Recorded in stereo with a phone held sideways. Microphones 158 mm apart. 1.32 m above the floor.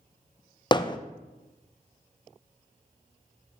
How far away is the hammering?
About 0.5 m.